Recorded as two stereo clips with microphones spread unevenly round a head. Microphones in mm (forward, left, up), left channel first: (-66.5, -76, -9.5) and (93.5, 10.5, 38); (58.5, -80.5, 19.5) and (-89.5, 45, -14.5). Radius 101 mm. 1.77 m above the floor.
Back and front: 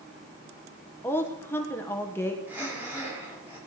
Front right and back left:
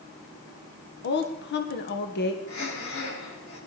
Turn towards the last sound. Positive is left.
turn(degrees=-50)